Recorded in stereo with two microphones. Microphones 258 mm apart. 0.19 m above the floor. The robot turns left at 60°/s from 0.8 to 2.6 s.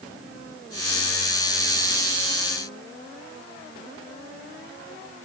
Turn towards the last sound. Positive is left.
No sound to turn to.